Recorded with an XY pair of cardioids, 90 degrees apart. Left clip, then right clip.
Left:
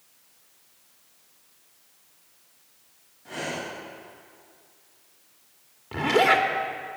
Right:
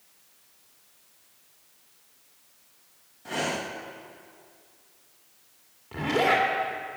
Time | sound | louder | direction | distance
3.2 | breathing | right 3 dB | 60° right | 1.8 m
5.9 | a zipper | left 3 dB | 45° left | 2.0 m